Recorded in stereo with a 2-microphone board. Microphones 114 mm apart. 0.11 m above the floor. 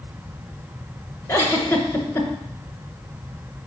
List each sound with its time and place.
1.3 s a giggle: 25° left (ahead or behind), 1.2 m